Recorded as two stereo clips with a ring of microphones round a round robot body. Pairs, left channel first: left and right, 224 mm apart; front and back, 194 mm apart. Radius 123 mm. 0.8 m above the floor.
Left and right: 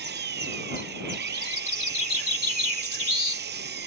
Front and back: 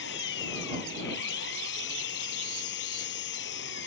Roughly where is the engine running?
Ahead right.